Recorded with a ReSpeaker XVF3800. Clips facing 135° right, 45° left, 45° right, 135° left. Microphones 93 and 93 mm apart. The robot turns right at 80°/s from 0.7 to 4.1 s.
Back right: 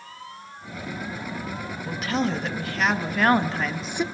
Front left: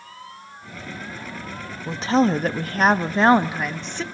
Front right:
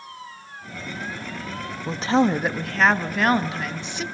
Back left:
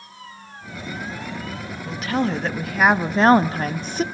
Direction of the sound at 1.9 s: 15° right.